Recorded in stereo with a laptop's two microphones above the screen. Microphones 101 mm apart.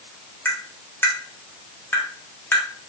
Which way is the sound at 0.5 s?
20° left (ahead or behind).